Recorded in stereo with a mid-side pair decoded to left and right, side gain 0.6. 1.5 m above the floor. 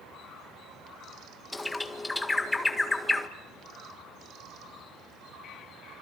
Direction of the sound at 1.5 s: 15° left.